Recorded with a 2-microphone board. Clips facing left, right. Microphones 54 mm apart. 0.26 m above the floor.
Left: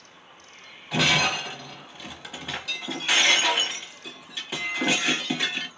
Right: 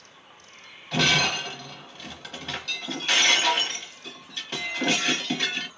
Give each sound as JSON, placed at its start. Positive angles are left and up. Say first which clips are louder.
{"t": 0.9, "sound": "breaking glass", "louder": "even", "side_deg": 10, "distance_m": 0.7}